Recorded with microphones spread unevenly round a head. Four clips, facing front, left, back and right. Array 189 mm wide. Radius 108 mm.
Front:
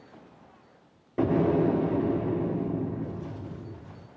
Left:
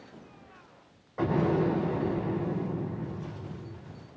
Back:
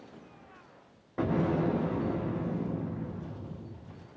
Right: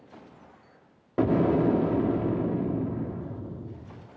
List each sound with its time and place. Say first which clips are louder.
1.2 s an explosion: right 4 dB, front 5 dB; 65° right, 1.5 m